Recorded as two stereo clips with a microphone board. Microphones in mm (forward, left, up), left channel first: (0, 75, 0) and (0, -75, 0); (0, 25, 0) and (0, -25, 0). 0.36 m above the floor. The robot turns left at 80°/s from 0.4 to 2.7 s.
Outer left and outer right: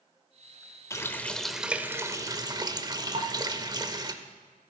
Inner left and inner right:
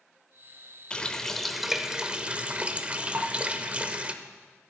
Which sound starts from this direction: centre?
A running tap, at 0.9 s.